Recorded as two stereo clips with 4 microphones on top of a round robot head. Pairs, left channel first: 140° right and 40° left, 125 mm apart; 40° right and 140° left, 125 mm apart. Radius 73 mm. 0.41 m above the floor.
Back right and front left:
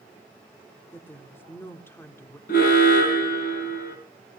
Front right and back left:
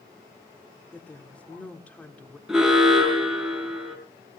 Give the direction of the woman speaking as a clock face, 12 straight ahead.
3 o'clock.